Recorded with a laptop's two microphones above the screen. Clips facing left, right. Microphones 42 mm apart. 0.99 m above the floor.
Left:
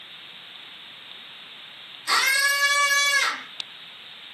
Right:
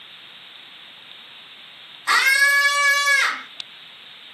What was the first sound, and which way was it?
A scream, 40° right (ahead or behind).